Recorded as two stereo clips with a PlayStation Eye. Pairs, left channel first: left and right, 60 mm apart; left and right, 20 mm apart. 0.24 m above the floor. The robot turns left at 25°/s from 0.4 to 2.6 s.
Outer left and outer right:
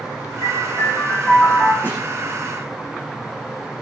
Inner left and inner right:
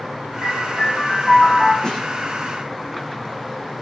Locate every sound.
0.4 s a piano: 45° left, 8 m; by 1.7 s 10° left, 8 m
1.8 s a snare drum: 30° left (ahead or behind), 10 m; by 2.0 s 25° left (ahead or behind), 10 m